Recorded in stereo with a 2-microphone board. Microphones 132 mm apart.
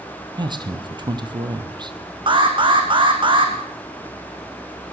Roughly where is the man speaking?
Right.